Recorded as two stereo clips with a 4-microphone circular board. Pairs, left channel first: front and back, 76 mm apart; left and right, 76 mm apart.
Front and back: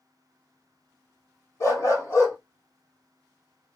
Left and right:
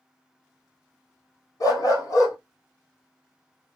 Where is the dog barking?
50° left, 1.5 m.